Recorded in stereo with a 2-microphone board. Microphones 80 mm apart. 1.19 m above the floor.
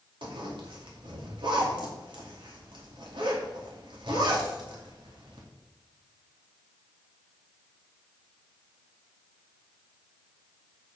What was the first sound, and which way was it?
A zipper, 85° right.